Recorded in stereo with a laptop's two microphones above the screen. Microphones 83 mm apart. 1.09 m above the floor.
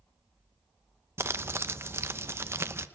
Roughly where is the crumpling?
Right.